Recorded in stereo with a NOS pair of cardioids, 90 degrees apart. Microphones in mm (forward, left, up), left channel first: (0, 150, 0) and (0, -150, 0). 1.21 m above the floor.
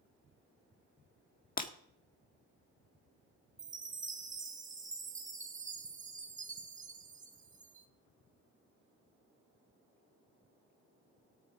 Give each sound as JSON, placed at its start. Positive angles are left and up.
{"t": 1.6, "sound": "breaking glass", "azimuth_deg": 30, "distance_m": 1.4}
{"t": 3.6, "sound": "a chime", "azimuth_deg": -25, "distance_m": 1.3}